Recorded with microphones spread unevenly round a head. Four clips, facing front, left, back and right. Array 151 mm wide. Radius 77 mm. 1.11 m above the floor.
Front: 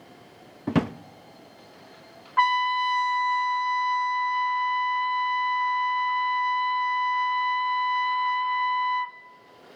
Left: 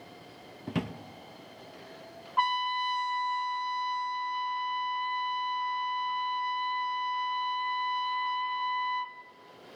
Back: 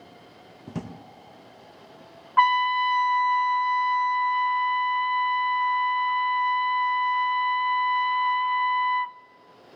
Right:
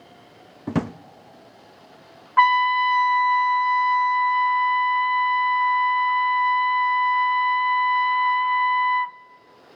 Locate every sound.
0.7 s a drawer: 35° right, 0.5 m
2.4 s a trumpet: 100° right, 0.7 m